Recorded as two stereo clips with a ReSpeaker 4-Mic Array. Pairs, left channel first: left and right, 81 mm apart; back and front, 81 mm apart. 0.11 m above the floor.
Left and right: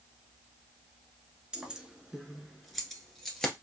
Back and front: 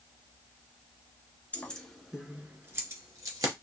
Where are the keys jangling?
150° right, 1.0 m; by 3.5 s 10° left, 1.5 m.